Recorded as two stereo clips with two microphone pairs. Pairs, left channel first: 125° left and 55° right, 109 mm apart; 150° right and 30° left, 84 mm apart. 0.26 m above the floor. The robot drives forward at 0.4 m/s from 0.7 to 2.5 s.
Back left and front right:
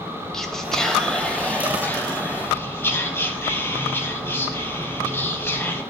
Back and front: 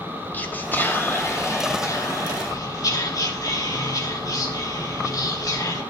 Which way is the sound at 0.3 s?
160° right.